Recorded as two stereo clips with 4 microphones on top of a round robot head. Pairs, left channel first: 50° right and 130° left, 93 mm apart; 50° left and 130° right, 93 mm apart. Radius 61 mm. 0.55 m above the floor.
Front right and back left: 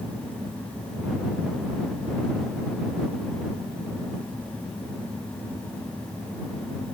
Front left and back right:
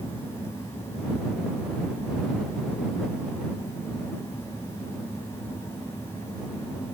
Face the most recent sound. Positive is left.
No sound to turn to.